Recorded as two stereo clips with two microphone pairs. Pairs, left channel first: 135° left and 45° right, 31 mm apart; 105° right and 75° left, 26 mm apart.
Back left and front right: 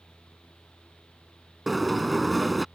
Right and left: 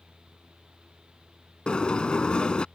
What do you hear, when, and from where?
1.7 s a sliding door: 135° right